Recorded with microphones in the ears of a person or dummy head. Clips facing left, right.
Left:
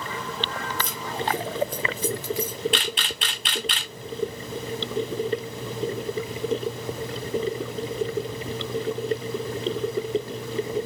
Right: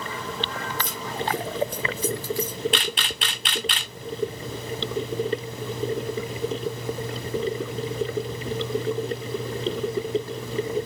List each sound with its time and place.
0.8 s keys jangling: 35° left (ahead or behind), 1.0 m; by 2.6 s 5° left (ahead or behind), 0.6 m
2.7 s a camera shutter: 45° right (ahead or behind), 1.1 m